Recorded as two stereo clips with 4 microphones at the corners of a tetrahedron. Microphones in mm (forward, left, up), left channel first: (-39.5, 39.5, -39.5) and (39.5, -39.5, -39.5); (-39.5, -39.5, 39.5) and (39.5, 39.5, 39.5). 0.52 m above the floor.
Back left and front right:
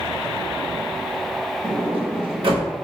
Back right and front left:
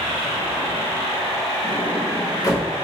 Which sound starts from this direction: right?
A sliding door, at 1.6 s.